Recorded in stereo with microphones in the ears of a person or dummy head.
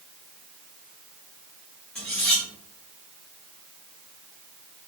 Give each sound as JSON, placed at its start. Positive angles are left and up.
{"t": 1.9, "sound": "cutlery clinking", "side_deg": 5, "distance_m": 0.7}